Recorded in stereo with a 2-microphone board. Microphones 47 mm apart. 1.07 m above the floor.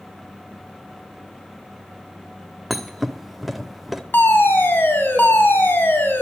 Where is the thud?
5° right (ahead or behind), 0.8 m.